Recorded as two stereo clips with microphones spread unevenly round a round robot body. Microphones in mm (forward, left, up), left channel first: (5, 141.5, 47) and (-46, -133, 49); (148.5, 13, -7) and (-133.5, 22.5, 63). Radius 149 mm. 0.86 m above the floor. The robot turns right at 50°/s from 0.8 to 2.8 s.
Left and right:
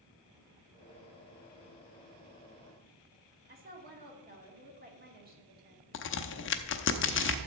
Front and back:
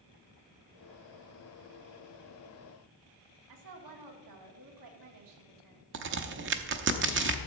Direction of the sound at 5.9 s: 130° left.